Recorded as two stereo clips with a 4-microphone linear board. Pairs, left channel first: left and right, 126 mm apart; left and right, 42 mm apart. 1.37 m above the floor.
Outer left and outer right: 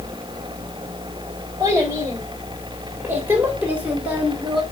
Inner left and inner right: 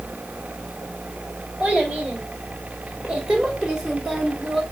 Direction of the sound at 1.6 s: 25° right (ahead or behind).